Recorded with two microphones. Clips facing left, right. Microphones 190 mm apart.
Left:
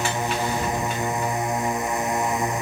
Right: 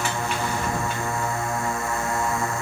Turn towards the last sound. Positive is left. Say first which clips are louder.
# left 2 dB
turn(degrees=20)  # may be behind; listen again after turning